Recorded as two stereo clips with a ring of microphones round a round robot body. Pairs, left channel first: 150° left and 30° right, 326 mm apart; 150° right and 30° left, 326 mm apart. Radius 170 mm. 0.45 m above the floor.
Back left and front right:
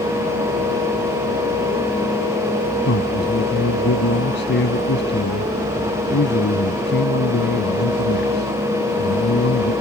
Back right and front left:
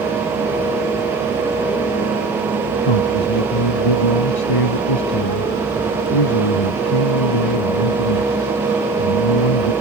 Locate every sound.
2.9 s a man speaking: 150° right